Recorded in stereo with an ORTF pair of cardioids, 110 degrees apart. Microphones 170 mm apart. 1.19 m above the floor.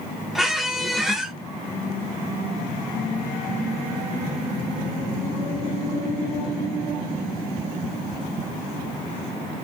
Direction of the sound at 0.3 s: Straight ahead.